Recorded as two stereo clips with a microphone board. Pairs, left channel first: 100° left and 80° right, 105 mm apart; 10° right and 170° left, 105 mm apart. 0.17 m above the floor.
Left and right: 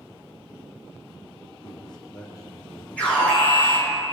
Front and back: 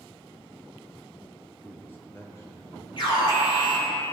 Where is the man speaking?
65° left, 2.5 m; by 2.9 s 45° left, 4 m.